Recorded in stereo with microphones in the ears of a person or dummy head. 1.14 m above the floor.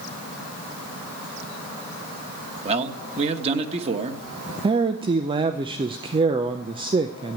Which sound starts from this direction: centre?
A man speaking, at 4.6 s.